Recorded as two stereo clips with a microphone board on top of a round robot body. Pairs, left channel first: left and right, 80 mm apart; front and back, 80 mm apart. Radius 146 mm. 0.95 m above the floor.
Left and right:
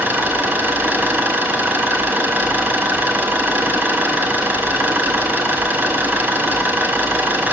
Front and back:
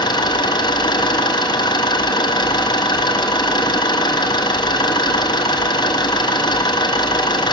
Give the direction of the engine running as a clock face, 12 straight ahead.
1 o'clock.